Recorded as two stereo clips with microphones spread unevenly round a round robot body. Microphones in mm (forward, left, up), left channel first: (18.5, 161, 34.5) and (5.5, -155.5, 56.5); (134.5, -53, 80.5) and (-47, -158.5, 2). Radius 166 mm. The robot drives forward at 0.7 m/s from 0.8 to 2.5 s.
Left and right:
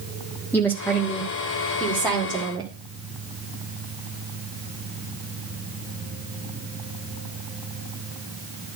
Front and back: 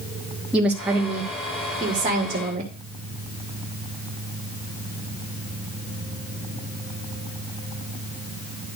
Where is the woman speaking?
165° left, 1.4 m; by 2.7 s 175° left, 2.5 m.